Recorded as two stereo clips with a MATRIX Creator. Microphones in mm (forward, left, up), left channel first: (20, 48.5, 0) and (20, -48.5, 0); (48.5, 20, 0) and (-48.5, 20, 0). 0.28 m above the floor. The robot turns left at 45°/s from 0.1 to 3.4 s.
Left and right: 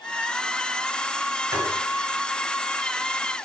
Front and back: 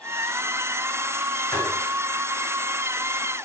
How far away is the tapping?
About 3.5 m.